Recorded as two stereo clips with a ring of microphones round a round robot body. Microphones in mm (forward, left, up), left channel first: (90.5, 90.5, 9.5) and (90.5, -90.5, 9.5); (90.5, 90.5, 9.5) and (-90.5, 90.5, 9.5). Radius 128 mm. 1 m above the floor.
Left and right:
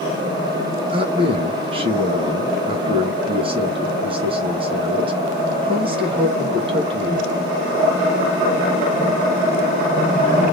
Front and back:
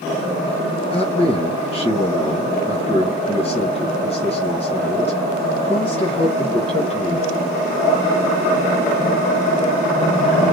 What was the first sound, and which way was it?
A man speaking, 45° right.